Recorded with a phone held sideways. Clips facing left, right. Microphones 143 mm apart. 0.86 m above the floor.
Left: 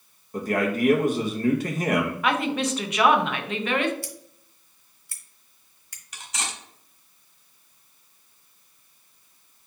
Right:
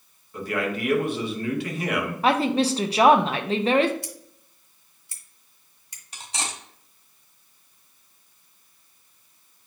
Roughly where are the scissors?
Centre.